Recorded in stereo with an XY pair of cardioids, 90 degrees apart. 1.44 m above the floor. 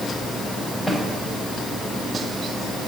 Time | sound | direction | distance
0.9 | a snare drum | 10° left | 5.5 m